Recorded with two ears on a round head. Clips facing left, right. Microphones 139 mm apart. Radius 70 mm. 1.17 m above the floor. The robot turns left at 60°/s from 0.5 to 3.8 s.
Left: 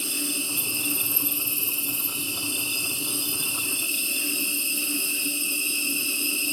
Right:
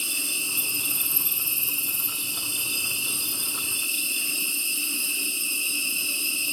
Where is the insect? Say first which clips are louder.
Left 7 dB; 20° right, 1.3 m; by 6.5 s 140° left, 1.3 m.